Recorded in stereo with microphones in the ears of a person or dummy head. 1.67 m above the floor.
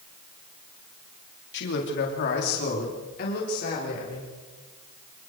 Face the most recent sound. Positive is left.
turn(degrees=50)  # may be behind; listen again after turning